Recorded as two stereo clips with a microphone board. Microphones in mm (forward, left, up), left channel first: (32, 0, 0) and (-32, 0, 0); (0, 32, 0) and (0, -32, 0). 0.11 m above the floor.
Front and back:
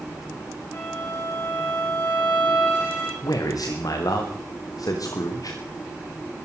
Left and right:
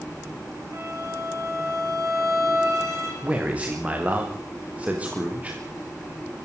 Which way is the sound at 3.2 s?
20° right.